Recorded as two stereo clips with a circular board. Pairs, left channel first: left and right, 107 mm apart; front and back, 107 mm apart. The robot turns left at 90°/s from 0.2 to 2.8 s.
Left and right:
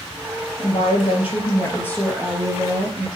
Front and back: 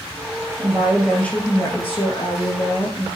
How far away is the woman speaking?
About 3 m.